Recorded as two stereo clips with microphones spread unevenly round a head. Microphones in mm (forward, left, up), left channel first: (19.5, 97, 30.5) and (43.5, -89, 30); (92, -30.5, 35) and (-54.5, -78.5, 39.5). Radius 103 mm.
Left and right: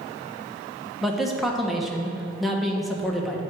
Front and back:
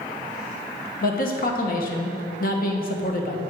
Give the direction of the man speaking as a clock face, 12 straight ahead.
12 o'clock.